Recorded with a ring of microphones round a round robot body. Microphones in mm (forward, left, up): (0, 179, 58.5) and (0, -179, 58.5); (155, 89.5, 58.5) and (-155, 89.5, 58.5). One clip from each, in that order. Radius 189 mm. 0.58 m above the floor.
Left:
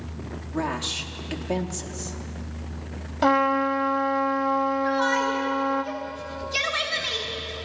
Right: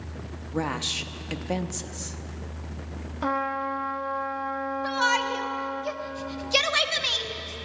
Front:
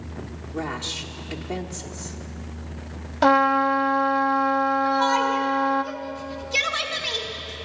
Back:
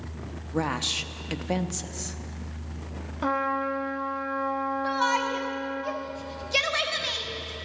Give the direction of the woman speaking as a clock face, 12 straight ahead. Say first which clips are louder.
Even, back 2 dB; 5 o'clock.